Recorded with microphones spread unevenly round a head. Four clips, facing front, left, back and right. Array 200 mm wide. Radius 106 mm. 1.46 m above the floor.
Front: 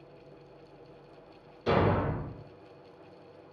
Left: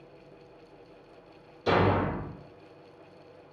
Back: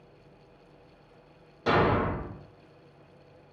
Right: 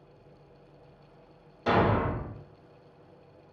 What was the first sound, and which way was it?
A thud, 155° right.